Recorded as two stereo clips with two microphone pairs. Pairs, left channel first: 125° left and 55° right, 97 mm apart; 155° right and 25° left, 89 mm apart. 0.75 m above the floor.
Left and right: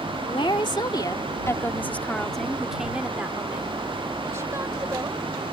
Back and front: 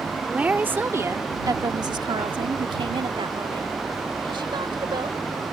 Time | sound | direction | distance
0.2 | a woman speaking | 100° left | ?